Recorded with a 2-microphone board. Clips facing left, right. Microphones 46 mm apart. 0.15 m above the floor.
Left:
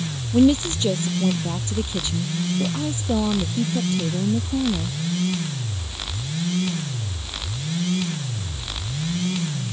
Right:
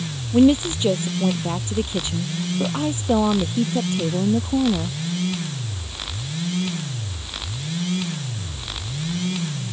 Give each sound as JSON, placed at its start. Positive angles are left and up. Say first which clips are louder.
{"t": 0.3, "sound": "a woman speaking", "louder": "right 1 dB", "side_deg": -15}